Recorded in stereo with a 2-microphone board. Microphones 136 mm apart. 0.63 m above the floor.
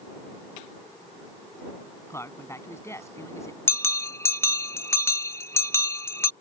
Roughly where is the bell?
Centre.